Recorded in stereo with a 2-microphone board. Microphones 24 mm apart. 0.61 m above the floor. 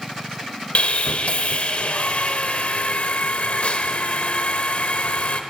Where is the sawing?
65° left (ahead or behind), 0.8 m.